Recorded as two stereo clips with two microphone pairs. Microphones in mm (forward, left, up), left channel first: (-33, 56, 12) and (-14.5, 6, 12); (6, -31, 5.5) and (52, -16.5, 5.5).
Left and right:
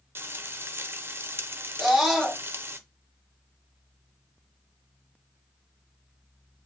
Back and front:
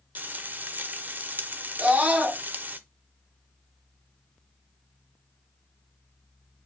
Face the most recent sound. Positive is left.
turn(degrees=20)